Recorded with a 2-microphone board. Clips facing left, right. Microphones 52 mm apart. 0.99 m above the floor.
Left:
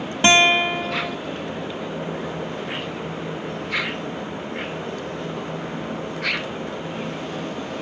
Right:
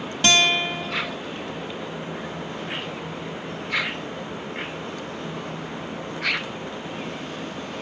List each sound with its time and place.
0.2 s a guitar: 25° left (ahead or behind)